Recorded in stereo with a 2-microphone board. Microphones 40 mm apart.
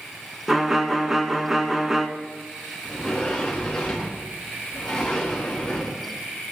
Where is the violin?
10° right (ahead or behind), 1.0 m.